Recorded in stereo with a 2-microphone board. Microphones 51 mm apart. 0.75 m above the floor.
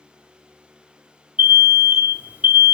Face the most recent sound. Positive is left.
turn(degrees=-30)  # may be behind; listen again after turning